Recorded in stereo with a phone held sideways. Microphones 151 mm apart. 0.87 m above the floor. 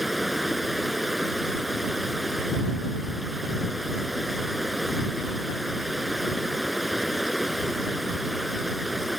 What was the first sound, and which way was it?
Running water, centre (ahead or behind).